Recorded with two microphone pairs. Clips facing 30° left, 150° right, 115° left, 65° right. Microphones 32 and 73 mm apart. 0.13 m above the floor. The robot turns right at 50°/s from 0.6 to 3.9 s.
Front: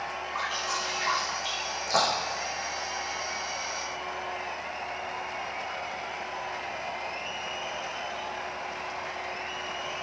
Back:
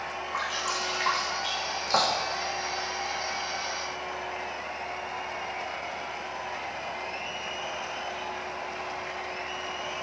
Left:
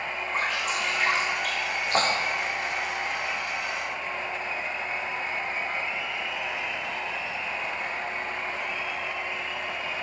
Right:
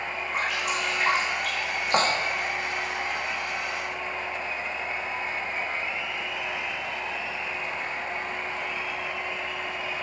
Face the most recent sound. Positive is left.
turn(degrees=20)